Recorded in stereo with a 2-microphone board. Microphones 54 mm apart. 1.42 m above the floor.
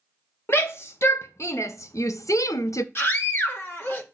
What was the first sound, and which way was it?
A shout, 45° left (ahead or behind).